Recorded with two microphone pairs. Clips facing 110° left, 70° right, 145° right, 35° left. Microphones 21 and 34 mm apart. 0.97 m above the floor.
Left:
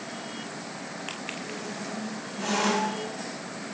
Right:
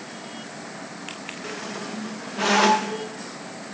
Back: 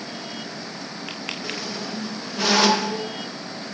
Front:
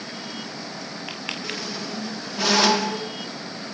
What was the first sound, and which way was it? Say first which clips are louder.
A squeak: right 3 dB, back 1 dB; 60° right.